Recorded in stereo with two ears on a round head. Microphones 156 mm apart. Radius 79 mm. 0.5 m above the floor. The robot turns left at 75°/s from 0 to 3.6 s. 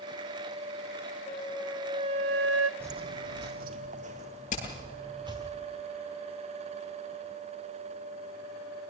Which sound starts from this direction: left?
Hammering, at 4.5 s.